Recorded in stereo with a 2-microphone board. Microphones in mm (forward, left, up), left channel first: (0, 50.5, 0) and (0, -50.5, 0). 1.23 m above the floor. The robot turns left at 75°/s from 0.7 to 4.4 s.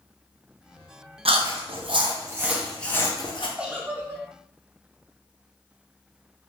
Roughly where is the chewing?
Right.